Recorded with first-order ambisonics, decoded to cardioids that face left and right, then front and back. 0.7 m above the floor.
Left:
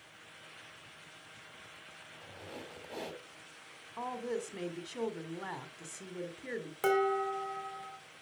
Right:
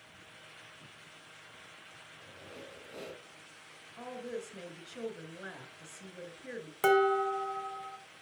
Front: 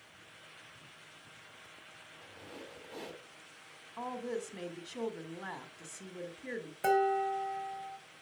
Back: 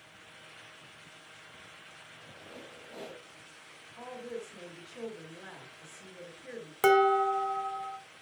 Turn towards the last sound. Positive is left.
turn(degrees=-170)